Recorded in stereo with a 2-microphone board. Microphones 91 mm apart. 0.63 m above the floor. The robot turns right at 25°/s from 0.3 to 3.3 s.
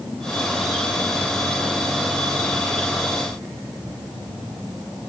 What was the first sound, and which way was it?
Only background noise.